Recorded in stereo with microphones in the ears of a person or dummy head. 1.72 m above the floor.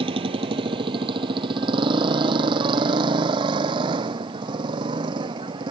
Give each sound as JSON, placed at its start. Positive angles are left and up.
{"t": 0.0, "sound": "a motorcycle", "side_deg": -30}